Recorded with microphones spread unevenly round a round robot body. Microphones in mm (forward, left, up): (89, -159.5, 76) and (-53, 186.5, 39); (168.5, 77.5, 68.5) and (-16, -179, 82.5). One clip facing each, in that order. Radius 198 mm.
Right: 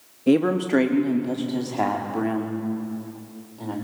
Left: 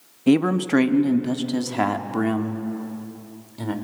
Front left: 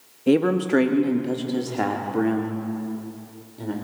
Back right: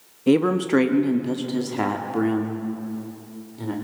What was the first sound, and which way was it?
A man speaking, 155° left.